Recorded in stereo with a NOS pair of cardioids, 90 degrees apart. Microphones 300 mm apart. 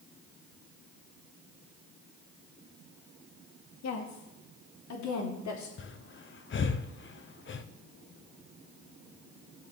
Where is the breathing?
40° left, 1.0 m.